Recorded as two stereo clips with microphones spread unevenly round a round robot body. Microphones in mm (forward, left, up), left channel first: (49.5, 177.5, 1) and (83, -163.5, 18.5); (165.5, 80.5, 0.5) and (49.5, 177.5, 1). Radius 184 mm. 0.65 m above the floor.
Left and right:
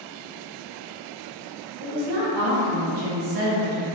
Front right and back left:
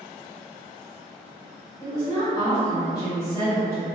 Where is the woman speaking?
105° right, 0.8 m.